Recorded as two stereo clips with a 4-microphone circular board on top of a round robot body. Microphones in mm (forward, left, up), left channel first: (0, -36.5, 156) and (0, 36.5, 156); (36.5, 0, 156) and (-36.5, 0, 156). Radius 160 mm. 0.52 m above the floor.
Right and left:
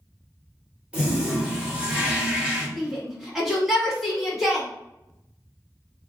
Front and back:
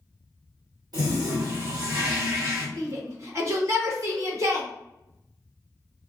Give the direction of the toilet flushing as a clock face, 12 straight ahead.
7 o'clock.